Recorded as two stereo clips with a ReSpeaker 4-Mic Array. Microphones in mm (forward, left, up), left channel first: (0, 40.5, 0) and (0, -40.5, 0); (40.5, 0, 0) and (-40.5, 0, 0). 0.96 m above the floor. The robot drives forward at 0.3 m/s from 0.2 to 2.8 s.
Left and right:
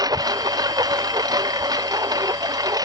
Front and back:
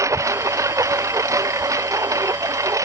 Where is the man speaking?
No man speaking in this recording.